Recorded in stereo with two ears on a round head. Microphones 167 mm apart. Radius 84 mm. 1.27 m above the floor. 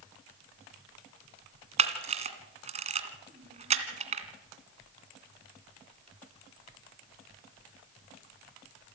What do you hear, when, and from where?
1.8 s a camera shutter: 35° right (ahead or behind), 2 m